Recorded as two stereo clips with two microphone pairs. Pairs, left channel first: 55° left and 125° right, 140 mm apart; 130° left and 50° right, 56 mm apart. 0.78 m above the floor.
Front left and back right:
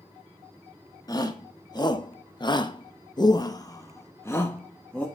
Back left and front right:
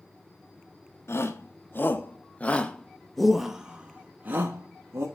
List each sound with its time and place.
1.1 s a shout: 110° left, 1.6 m; by 5.1 s 25° right, 1.4 m